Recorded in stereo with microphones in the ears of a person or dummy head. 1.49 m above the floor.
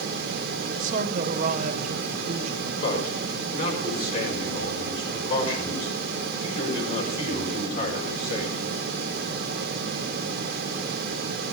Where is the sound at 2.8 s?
45° left (ahead or behind), 6 m.